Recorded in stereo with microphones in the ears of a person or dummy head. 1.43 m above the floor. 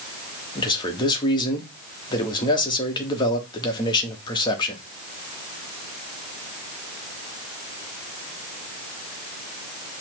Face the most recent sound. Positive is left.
turn(degrees=20)  # may be behind; listen again after turning